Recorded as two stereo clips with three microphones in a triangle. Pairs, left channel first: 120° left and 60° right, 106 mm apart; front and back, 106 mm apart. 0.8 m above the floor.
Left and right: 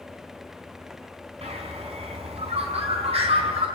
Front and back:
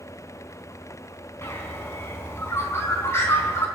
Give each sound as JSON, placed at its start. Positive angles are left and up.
{"t": 1.4, "sound": "a bird", "azimuth_deg": -65, "distance_m": 4.5}